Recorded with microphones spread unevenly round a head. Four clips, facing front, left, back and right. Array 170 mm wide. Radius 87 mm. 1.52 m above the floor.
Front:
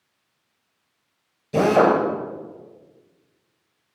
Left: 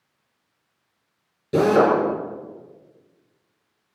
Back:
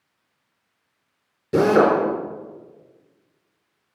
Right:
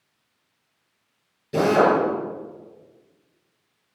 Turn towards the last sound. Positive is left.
turn(degrees=155)